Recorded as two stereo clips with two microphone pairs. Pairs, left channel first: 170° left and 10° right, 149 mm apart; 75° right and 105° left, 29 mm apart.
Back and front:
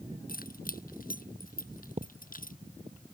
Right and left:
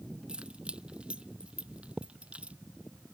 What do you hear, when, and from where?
0.3 s keys jangling: 160° left; by 2.6 s 150° left
2.0 s a thud: 35° left